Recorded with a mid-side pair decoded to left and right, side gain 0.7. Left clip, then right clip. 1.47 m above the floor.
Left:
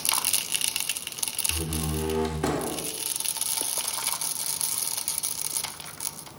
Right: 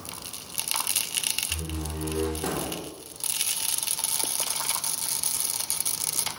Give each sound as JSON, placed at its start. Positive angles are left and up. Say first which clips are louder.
{"t": 1.5, "sound": "a door slam", "louder": "left 2 dB", "azimuth_deg": 40, "distance_m": 3.5}